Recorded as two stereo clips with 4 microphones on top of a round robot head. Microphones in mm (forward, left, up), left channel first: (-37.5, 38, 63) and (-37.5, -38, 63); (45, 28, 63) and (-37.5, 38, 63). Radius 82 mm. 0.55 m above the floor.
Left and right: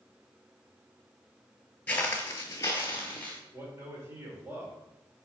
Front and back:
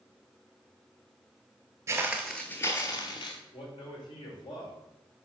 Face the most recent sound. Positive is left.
turn(degrees=-30)